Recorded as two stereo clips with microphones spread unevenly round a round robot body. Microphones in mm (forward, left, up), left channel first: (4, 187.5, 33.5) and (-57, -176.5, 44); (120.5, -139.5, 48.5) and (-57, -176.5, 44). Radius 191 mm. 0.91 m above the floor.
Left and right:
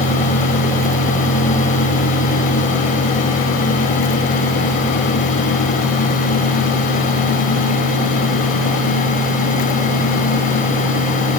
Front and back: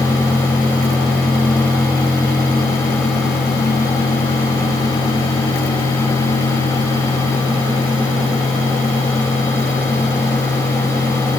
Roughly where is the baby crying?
No baby crying in this recording.